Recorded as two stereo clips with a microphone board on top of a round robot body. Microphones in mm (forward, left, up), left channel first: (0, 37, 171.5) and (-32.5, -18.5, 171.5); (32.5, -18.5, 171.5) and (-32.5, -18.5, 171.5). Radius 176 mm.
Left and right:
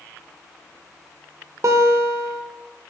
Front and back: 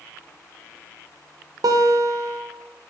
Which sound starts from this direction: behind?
A guitar, at 1.6 s.